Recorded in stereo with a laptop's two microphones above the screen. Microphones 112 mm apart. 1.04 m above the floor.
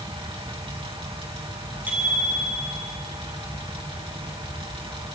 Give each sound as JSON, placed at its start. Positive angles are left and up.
{"t": 0.0, "sound": "a fan", "side_deg": -55, "distance_m": 3.0}
{"t": 1.9, "sound": "a bicycle bell", "side_deg": -15, "distance_m": 7.0}